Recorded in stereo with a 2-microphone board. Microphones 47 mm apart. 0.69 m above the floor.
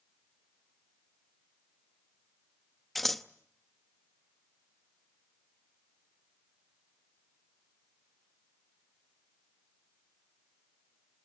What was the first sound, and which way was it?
Scissors, 5° left (ahead or behind).